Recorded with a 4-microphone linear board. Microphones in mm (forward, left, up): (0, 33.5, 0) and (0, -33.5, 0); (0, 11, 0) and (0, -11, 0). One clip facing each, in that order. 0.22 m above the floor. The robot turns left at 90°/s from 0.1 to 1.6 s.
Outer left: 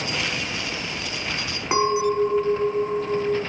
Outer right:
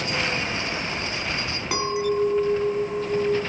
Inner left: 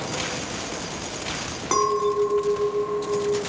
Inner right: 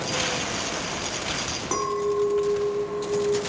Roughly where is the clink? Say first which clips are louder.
Outer left 4 dB, inner left 4 dB; left.